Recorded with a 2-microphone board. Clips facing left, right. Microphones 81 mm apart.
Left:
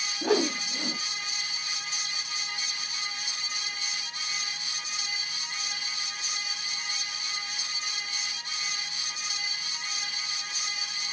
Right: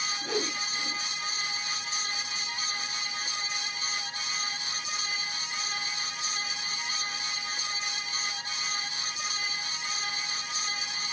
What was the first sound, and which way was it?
A whoosh, 80° left.